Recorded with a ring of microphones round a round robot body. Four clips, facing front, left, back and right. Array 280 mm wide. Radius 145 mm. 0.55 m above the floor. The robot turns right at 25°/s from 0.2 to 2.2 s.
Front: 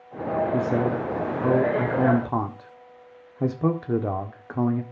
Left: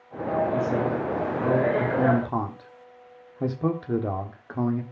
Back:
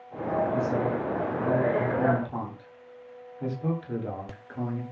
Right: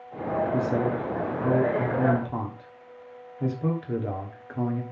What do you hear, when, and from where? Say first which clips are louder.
0.5 s a man speaking: left 1 dB, front 3 dB; 20° right, 1.5 m; by 4.8 s 25° left, 1.5 m